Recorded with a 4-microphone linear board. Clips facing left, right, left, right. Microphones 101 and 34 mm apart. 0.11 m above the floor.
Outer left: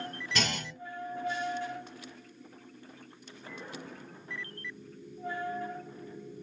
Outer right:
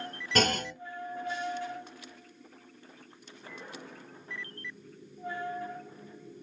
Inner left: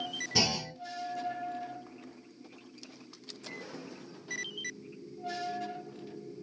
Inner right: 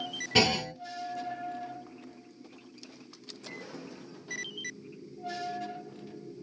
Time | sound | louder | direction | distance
0.3 | a clunk | outer right 7 dB, inner right 6 dB | 45° right (ahead or behind) | 0.5 m